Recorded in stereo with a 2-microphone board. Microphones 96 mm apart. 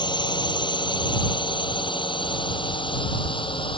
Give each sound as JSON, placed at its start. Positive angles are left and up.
{"t": 0.0, "sound": "a drone", "side_deg": 50}